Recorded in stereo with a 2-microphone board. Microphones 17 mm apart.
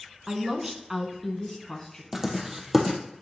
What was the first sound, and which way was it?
A woman speaking, 40° right (ahead or behind).